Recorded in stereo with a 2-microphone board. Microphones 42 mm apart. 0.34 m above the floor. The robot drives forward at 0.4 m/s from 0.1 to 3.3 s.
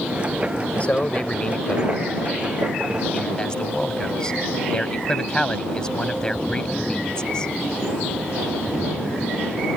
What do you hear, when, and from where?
0.8 s a man speaking: 30° left (ahead or behind); by 7.5 s 20° left (ahead or behind)